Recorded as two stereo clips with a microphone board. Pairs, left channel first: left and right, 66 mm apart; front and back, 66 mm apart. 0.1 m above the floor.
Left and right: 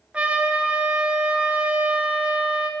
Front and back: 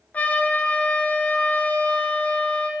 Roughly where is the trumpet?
Ahead right.